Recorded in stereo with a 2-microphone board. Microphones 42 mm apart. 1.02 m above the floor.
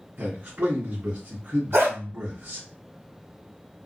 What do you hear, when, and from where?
0.2 s a man speaking: 55° right (ahead or behind), 1.3 m
1.7 s a dog barking: 70° right (ahead or behind), 1.7 m